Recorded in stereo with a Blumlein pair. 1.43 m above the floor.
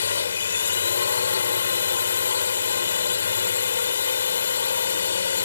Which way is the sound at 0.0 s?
70° left.